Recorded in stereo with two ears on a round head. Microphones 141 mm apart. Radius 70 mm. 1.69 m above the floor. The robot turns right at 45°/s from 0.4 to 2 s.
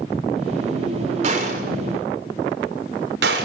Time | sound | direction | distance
1.2 | a gunshot | 50° right (ahead or behind) | 6.5 m